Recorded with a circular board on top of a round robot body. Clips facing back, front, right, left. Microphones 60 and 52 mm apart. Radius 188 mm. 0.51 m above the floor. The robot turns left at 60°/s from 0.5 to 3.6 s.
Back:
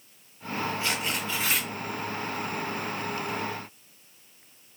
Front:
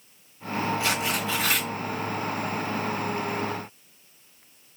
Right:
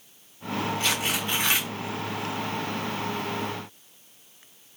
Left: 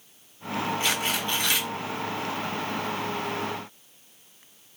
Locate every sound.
0.8 s tearing paper: 10° left, 2 m; by 1.7 s 45° right, 2 m